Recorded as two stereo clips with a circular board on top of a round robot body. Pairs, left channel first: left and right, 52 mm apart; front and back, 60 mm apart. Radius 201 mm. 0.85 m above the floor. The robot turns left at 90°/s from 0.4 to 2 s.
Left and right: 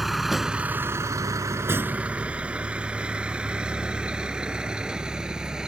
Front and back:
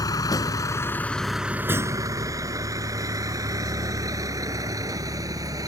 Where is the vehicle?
5° right; by 5.7 s 165° right.